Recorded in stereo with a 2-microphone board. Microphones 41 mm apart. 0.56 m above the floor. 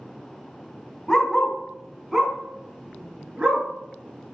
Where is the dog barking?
15° left (ahead or behind), 1.0 m; by 3.6 s 20° right (ahead or behind), 2 m.